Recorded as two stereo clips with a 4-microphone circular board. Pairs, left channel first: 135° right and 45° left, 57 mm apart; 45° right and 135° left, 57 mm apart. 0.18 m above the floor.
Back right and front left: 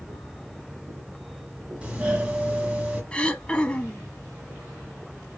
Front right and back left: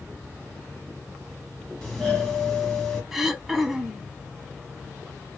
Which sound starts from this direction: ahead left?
A doorbell, at 1.8 s.